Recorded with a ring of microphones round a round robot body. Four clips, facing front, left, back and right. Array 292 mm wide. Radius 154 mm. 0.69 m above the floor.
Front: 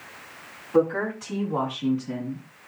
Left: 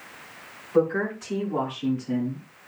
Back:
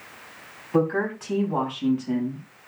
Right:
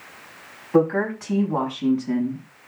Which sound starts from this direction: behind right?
A woman speaking, at 0.7 s.